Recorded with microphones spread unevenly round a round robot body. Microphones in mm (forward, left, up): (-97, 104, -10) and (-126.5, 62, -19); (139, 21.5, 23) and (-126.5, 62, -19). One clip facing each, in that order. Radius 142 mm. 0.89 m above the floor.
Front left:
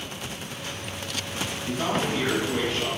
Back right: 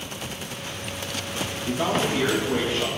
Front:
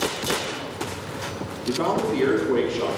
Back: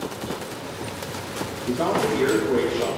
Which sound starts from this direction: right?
A man speaking, at 1.7 s.